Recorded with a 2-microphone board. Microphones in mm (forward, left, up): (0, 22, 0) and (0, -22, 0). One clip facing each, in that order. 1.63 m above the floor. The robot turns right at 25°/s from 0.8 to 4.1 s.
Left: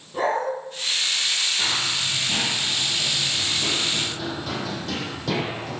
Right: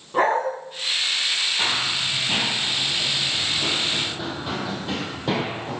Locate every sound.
0.1 s a dog barking: 55° right (ahead or behind), 4.5 m
1.6 s running footsteps: 35° right (ahead or behind), 2.5 m; by 5.8 s 25° right (ahead or behind), 4 m